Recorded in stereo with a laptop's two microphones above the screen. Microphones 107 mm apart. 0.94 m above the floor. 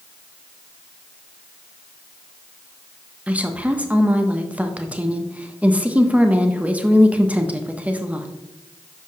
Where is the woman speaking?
15° right (ahead or behind), 0.6 m.